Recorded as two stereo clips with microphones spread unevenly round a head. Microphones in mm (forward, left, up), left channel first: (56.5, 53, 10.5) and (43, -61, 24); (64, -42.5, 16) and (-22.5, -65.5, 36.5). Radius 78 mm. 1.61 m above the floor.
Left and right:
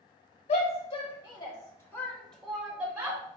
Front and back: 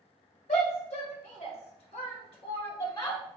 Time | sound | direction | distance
0.5 | a shout | 50° left | 1.6 m